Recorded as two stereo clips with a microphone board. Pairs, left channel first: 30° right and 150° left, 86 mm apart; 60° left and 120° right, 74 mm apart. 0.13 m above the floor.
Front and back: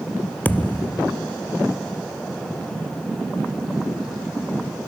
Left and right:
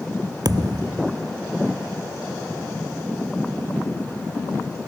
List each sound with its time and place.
0.5 s a thud: 100° right